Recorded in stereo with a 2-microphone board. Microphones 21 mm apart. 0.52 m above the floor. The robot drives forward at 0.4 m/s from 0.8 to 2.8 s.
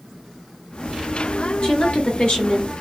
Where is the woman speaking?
55° left (ahead or behind), 1.6 m.